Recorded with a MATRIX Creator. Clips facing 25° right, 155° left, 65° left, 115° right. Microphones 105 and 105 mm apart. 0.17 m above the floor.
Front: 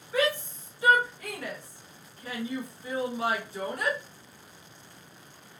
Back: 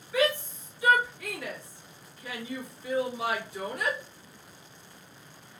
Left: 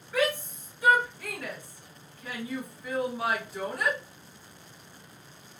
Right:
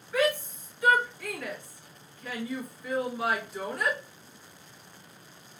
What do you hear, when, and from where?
0.1 s a shout: 20° right, 1.9 m